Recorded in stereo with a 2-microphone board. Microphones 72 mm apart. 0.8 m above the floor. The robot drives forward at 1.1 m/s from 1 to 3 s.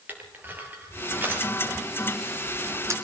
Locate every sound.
0.1 s crushing: 25° right (ahead or behind), 4.5 m; by 2.9 s 45° right (ahead or behind), 2.5 m